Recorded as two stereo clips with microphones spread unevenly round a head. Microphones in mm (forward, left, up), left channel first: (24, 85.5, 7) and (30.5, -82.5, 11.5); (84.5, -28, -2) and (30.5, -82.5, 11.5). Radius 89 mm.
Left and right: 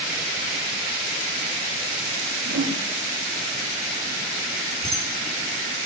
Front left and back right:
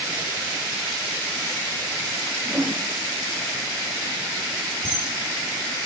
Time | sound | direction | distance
2.5 | a whoosh | 75° right | 0.9 m
4.8 | a camera shutter | 175° left | 1.6 m